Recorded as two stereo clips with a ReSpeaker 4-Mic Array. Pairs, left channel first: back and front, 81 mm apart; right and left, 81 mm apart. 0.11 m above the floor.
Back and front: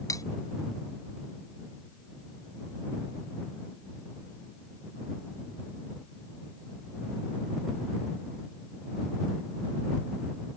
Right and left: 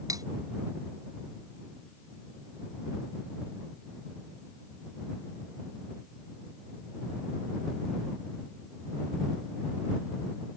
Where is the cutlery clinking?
135° left.